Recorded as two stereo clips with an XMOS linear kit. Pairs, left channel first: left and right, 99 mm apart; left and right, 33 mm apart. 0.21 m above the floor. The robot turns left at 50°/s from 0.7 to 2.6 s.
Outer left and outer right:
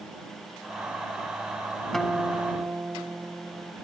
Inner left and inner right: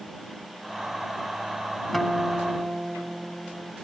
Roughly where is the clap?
I don't hear a clap.